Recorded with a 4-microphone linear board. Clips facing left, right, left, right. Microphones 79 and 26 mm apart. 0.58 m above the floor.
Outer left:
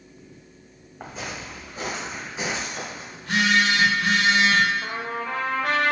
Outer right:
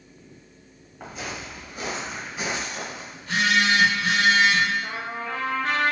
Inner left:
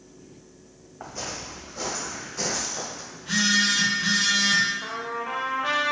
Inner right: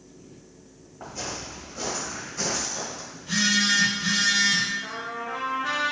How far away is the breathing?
No breathing in this recording.